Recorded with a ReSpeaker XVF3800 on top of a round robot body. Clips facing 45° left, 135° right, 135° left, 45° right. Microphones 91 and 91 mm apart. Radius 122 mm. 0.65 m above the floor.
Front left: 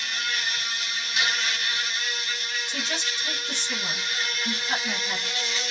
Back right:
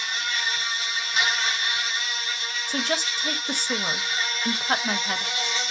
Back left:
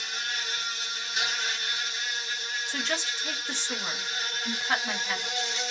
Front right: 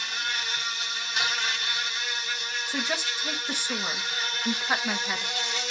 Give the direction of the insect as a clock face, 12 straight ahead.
3 o'clock.